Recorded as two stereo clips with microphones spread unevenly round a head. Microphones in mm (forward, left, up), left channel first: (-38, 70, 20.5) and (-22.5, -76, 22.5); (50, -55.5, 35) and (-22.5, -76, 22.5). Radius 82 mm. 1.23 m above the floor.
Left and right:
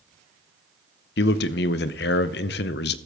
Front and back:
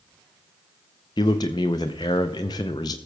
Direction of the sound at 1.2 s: 75° left.